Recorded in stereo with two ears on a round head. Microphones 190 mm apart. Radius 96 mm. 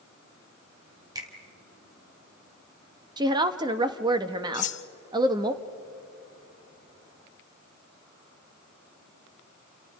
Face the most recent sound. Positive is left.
turn(degrees=35)  # may be behind; listen again after turning